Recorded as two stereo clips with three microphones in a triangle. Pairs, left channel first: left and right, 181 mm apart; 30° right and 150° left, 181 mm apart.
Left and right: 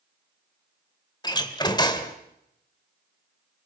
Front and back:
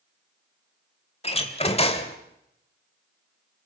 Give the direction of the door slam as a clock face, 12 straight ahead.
11 o'clock.